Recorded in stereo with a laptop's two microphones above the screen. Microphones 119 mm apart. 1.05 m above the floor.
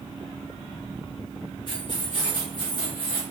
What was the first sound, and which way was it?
Keys jangling, 40° left (ahead or behind).